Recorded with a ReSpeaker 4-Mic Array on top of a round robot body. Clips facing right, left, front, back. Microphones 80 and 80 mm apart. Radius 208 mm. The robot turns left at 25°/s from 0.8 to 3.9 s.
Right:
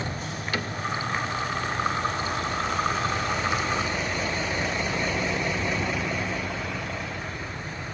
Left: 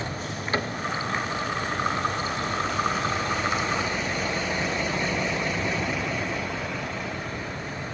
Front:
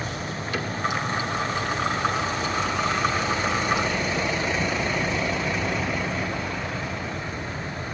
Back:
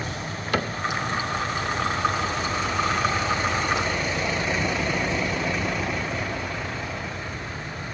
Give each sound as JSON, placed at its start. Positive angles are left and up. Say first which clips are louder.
{"t": 0.5, "sound": "a cupboard door", "louder": "left 4 dB, back 5 dB", "azimuth_deg": 150, "distance_m": 1.0}